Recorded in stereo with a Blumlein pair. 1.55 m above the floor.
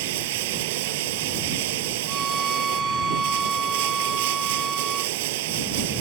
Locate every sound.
0.0 s running water: 50° right
2.1 s a violin: 10° right